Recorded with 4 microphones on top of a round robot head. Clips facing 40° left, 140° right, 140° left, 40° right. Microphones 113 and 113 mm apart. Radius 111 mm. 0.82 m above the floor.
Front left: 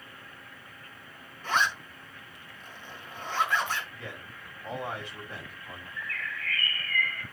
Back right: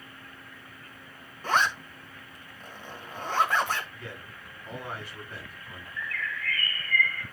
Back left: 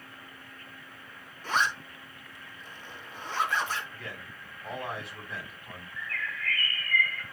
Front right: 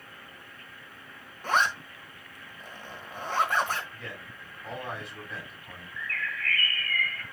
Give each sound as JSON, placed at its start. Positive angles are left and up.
{"t": 1.4, "sound": "a zipper", "azimuth_deg": -85, "distance_m": 1.6}
{"t": 3.9, "sound": "a man speaking", "azimuth_deg": 50, "distance_m": 6.5}
{"t": 6.0, "sound": "a bird", "azimuth_deg": 70, "distance_m": 4.0}